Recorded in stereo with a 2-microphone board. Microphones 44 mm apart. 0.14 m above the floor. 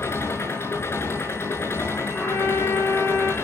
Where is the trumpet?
75° left (ahead or behind), 7.5 m.